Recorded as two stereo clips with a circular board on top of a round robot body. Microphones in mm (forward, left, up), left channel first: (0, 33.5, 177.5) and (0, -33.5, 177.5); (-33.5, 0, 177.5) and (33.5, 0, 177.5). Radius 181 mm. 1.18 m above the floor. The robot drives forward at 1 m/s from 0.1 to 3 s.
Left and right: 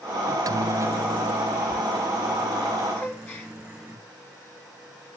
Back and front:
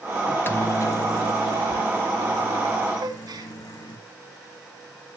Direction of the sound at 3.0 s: 30° left.